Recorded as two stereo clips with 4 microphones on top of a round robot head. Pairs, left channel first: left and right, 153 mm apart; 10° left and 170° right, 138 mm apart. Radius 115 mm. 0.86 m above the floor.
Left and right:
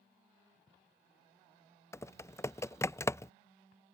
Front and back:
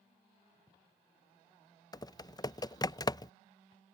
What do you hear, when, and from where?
1.9 s typing on a keyboard: 35° left